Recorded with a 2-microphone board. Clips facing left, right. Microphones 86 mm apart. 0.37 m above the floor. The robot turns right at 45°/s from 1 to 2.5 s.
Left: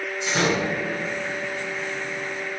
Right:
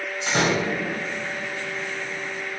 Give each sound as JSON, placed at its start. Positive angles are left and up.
{"t": 0.3, "sound": "a door slam", "side_deg": -55, "distance_m": 1.6}